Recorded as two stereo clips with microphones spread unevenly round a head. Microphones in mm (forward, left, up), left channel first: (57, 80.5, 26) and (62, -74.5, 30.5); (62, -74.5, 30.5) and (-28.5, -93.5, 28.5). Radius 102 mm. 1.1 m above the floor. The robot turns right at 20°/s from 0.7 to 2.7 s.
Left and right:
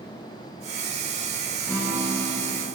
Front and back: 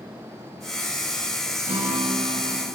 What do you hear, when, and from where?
1.7 s a guitar: 170° left, 0.6 m; by 2.6 s 170° right, 0.6 m